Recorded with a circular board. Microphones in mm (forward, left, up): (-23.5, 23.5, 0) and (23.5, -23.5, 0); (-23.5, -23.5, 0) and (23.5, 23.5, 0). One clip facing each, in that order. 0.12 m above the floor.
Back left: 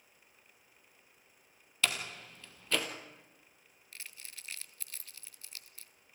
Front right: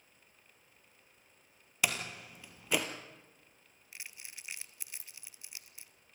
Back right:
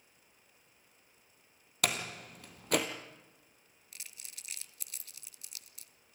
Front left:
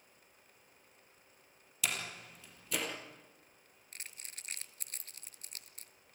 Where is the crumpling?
20° left, 0.7 m.